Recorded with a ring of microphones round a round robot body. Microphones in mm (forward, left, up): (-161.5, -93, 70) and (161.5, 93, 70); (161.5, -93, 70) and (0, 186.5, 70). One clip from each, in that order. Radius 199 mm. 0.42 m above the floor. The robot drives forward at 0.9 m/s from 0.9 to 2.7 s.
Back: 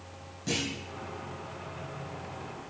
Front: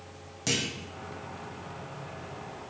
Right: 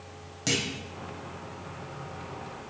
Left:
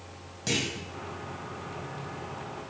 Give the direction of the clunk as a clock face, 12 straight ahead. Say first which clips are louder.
Front 3 dB, right 1 dB; 12 o'clock.